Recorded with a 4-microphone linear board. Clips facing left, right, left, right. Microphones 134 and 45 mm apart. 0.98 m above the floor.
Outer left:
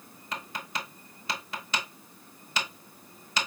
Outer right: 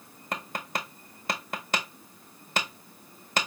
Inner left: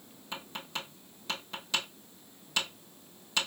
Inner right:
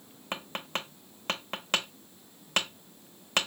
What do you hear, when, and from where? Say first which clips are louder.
0.3 s tapping: outer right 3 dB, inner right 4 dB; 55° right (ahead or behind), 0.8 m